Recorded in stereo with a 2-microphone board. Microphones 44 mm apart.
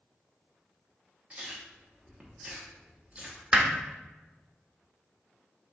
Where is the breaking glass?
No breaking glass in this recording.